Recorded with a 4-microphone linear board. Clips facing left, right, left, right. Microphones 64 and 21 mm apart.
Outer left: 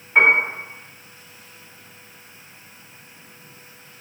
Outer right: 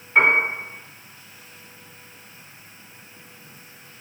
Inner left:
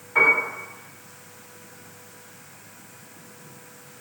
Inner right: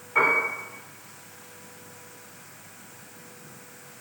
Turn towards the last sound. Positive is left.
turn(degrees=10)  # may be behind; listen again after turning